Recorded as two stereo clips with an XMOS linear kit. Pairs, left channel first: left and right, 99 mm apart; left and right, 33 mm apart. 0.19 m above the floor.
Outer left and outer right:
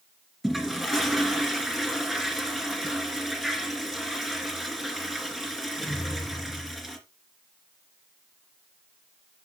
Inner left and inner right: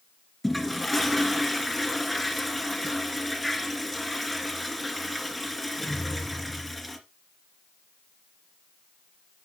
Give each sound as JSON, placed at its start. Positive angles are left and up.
{"t": 0.4, "sound": "a toilet flushing", "side_deg": -5, "distance_m": 2.0}